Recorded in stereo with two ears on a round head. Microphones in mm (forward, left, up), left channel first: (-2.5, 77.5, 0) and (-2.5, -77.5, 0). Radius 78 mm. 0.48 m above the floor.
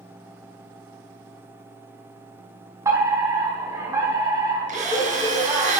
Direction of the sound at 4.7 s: 45° right (ahead or behind).